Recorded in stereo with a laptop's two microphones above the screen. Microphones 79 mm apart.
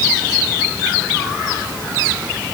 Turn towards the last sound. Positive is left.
No sound to turn to.